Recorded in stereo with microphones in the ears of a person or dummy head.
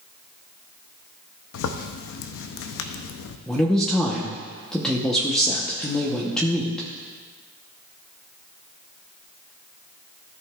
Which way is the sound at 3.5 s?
Centre (ahead or behind).